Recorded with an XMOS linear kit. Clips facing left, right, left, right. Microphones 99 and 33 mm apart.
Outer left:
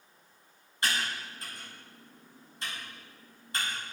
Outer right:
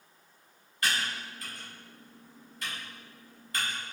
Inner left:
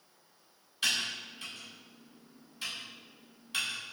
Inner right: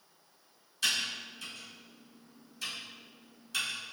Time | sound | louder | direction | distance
0.8 | typing on a keyboard | even, even | 30° left (ahead or behind) | 1.9 m